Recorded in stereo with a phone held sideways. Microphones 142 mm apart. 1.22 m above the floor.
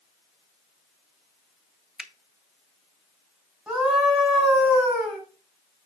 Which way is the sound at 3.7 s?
5° right (ahead or behind).